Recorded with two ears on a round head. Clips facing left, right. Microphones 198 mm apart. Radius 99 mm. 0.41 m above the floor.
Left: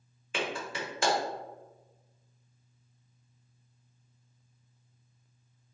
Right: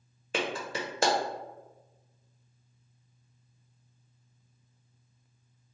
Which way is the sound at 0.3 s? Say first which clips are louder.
Right 2 dB; 35° right (ahead or behind).